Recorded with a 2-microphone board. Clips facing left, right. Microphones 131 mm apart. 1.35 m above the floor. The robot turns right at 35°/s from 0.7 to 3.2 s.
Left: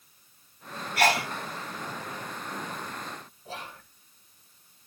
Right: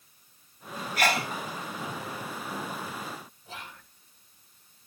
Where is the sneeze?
70° left (ahead or behind), 2.5 m; by 1.3 s 85° left, 2.5 m.